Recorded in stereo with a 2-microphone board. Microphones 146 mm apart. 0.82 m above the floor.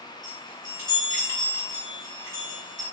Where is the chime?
60° left (ahead or behind), 3 m.